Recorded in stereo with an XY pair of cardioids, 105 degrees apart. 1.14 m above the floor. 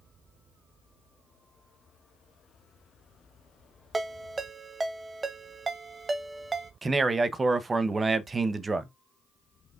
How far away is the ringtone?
About 0.7 m.